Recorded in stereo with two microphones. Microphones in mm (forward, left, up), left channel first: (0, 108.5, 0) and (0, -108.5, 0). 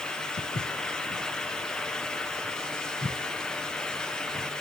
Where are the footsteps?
40° left (ahead or behind), 2 m; by 4.5 s 65° left (ahead or behind), 7.5 m.